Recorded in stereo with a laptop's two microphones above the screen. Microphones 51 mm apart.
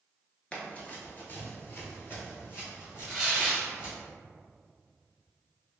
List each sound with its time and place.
0.5 s running footsteps: 20° left (ahead or behind), 1.0 m; by 4.0 s 50° left (ahead or behind), 2.5 m
3.1 s tearing paper: 10° right (ahead or behind), 1.4 m